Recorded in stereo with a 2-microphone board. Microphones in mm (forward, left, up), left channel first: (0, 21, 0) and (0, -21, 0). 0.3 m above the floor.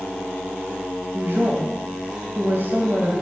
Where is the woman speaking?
45° right (ahead or behind), 1.9 m.